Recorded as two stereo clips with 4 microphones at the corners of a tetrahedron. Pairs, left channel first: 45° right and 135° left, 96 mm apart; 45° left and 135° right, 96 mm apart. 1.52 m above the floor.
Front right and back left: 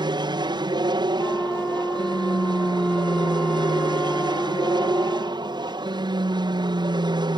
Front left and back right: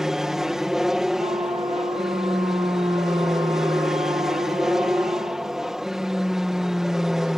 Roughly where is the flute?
Behind right.